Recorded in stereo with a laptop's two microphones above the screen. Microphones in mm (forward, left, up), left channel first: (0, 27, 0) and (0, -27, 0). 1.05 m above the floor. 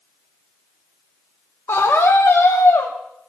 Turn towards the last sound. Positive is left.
turn(degrees=80)